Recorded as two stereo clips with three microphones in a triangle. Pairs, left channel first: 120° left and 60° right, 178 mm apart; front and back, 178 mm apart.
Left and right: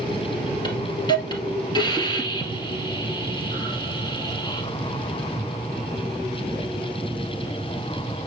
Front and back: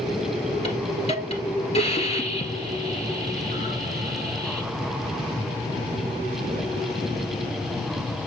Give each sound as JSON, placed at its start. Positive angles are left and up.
{"t": 0.6, "sound": "a hiss", "azimuth_deg": 55, "distance_m": 1.7}